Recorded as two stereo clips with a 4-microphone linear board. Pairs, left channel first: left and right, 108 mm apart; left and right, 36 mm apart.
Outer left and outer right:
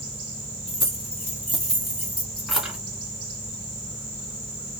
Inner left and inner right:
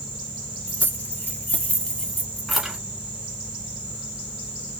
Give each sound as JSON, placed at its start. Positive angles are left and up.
{"t": 0.7, "sound": "keys jangling", "side_deg": 55, "distance_m": 1.8}